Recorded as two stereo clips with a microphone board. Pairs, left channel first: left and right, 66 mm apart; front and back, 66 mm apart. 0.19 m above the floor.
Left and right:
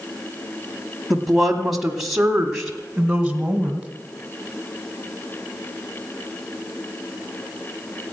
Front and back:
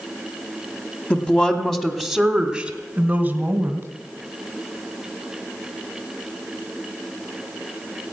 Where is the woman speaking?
5° right, 1.5 m; by 3.9 s 165° right, 1.8 m.